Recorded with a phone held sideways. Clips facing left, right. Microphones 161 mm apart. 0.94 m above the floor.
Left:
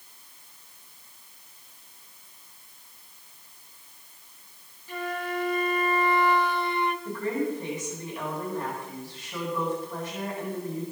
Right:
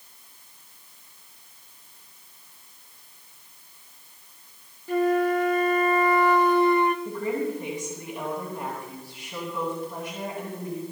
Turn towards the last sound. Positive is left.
turn(degrees=-15)  # may be behind; listen again after turning